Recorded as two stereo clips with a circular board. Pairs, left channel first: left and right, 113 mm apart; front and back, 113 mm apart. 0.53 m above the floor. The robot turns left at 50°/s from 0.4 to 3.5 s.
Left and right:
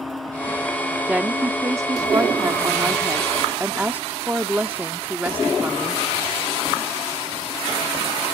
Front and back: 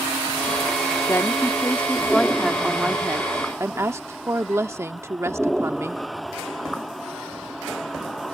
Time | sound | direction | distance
1.1 | a woman speaking | 25° right | ?